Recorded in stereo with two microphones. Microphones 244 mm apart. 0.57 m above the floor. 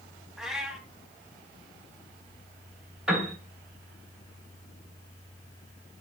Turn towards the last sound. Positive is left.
turn(degrees=-5)  # may be behind; listen again after turning